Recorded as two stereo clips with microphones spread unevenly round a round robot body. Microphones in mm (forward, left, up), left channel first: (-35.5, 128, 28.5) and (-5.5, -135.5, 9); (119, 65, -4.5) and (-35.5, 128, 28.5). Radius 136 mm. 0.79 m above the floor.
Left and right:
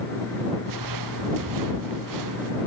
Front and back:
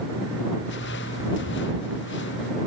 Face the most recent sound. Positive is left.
turn(degrees=-65)